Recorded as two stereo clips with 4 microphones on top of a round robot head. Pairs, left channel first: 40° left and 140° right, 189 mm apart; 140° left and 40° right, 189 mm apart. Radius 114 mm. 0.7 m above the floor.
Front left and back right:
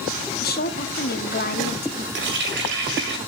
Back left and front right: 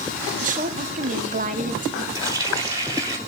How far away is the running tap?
About 2 m.